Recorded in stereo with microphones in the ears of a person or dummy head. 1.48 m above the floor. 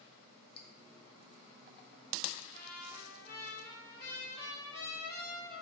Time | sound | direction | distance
0.6 | dripping | 30° left (ahead or behind) | 1.4 m
2.5 | a trumpet | 20° left (ahead or behind) | 3.5 m